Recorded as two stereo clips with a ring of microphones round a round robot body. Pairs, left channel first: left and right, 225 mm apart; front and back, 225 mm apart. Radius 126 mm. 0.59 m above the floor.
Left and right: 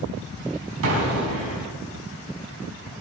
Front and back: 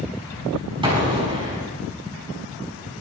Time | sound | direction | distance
0.8 | an explosion | 110° right | 5 m